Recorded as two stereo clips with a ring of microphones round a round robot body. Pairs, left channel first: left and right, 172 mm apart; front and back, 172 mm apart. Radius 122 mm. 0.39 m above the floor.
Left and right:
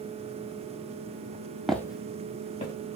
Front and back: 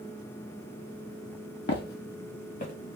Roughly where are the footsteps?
Ahead.